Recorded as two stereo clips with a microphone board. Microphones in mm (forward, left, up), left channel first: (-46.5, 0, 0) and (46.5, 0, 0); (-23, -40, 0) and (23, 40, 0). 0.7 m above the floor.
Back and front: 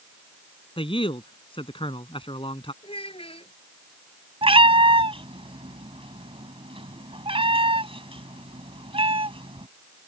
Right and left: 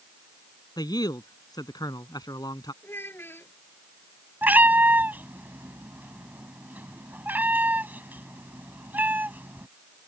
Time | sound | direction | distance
0.8 | a man speaking | 165° right | ?
2.8 | a child speaking | 175° left | ?
4.4 | a cat meowing | 10° right | ?